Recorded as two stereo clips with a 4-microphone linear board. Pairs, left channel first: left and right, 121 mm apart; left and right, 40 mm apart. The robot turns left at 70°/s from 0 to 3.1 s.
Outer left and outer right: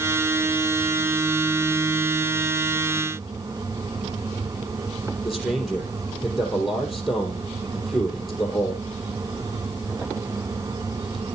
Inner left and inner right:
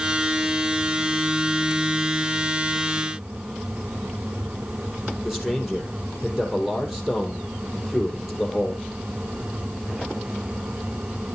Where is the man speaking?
5° right (ahead or behind), 3.5 m.